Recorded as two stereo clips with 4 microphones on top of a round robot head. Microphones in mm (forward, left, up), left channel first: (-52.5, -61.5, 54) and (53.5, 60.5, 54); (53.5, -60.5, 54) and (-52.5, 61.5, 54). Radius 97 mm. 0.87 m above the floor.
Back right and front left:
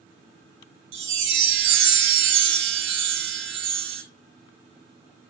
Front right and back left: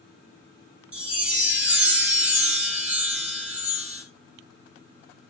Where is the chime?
50° left, 2 m.